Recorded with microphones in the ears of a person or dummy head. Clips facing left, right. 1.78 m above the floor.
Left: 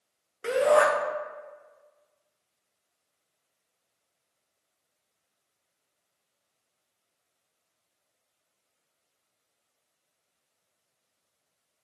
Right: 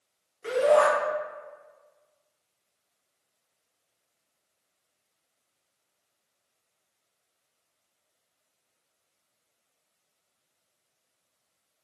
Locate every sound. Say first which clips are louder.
0.4 s a shout: right 1 dB; 75° left (ahead or behind), 0.6 m